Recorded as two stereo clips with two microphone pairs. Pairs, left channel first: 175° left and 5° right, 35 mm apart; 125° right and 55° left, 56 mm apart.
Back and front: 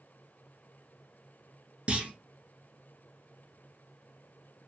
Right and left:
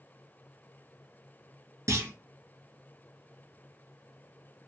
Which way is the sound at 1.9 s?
45° left.